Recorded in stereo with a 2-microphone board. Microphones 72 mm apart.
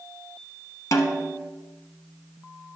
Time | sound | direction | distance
0.9 | a snare drum | 50° left (ahead or behind) | 1.0 m